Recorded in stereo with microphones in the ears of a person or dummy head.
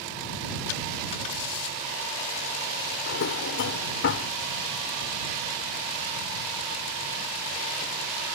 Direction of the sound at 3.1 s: 60° left (ahead or behind).